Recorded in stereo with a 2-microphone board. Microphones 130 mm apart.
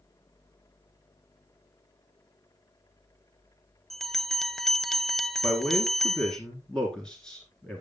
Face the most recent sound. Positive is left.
turn(degrees=5)  # may be behind; listen again after turning